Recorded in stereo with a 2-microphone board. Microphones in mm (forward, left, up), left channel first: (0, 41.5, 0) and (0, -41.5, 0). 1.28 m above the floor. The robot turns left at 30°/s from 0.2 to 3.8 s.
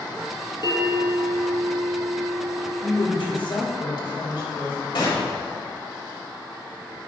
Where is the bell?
110° left, 3 m; by 2.7 s 50° left, 3 m.